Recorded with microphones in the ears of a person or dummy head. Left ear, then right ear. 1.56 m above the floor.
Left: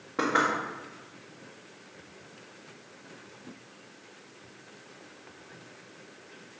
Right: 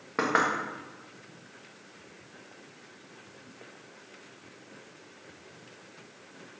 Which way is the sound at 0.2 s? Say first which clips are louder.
Even; 30° right (ahead or behind).